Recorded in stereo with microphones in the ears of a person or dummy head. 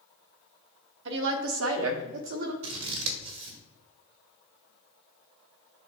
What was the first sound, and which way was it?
A woman speaking, 70° right (ahead or behind).